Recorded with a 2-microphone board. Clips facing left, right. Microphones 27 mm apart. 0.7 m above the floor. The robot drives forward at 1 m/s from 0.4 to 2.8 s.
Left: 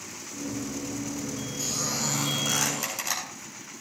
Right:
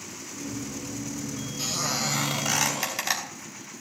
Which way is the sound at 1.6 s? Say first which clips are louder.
Right 3 dB; 45° right (ahead or behind).